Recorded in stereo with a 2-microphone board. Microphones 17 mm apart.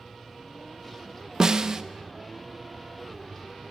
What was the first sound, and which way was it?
A snare drum, 40° right (ahead or behind).